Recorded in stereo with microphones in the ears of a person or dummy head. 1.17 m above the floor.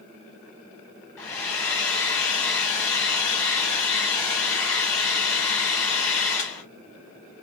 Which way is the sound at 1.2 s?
15° left (ahead or behind).